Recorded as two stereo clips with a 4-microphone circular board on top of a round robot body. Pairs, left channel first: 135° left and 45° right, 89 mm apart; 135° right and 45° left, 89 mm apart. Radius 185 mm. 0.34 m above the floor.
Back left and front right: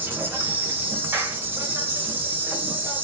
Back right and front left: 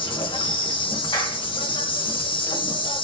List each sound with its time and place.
0.0 s an insect: 110° right, 1.0 m
1.1 s a clap: 105° right, 2.0 m